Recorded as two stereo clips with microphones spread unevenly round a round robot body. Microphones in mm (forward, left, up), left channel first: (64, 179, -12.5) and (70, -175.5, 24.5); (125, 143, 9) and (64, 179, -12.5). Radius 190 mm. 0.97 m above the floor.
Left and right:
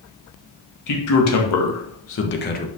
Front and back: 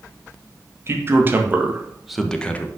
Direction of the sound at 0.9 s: 120° left.